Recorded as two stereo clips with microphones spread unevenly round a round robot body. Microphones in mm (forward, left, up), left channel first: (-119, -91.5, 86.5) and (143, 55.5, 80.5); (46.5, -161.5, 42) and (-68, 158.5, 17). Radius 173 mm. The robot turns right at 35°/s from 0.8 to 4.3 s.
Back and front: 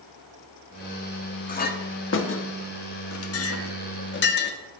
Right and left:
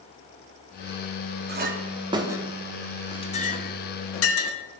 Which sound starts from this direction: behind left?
A clink, at 1.5 s.